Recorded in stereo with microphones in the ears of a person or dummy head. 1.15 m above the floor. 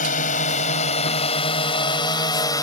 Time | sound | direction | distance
0.0 | a drone | 50° left (ahead or behind) | ?